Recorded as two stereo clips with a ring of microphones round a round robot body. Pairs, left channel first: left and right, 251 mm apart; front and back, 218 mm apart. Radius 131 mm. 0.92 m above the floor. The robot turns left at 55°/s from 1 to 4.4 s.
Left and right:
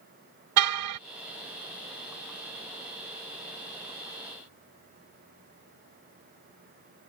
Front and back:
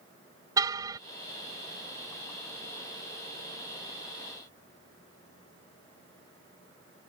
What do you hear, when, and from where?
0.6 s a car horn: 105° right